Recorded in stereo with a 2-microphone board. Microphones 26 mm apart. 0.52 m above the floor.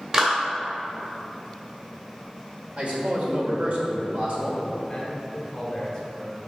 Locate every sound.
0.1 s a clap: 25° right (ahead or behind), 1.6 m
2.8 s a man speaking: 55° right (ahead or behind), 1.6 m
4.9 s a man speaking: 20° left (ahead or behind), 1.8 m